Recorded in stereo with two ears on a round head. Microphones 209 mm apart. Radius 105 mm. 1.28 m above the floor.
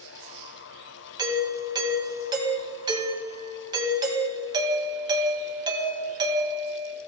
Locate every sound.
1.2 s a doorbell: 20° right (ahead or behind), 2.5 m